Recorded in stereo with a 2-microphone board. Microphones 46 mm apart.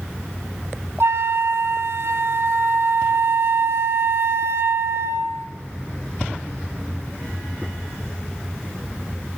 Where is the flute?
70° right (ahead or behind), 0.9 m.